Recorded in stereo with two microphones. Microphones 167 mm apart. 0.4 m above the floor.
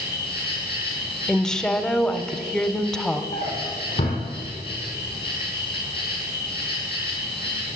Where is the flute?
No flute in this recording.